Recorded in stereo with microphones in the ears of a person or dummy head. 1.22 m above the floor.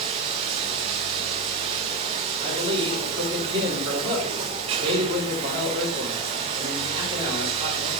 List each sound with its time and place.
0.0 s running water: 30° right (ahead or behind), 0.8 m
2.4 s a man speaking: 25° right (ahead or behind), 3 m